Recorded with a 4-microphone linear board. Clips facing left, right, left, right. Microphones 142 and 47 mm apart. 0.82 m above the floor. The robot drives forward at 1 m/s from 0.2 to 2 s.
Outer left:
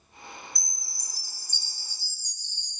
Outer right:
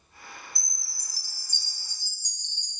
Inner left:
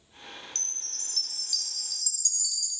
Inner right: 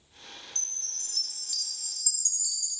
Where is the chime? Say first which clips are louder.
Outer left 2 dB, inner left 2 dB; 5° right (ahead or behind), 1.7 m; by 2.7 s 20° right (ahead or behind), 0.6 m.